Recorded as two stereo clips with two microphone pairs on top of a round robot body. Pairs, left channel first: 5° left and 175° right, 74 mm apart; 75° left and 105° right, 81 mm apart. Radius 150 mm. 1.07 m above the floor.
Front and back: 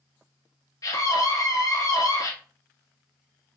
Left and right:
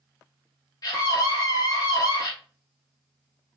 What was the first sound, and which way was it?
A scream, 40° left.